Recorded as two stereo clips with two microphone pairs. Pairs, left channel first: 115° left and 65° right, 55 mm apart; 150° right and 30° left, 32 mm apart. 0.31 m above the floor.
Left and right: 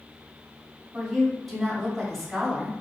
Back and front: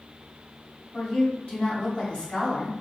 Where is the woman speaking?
155° right, 1.8 m.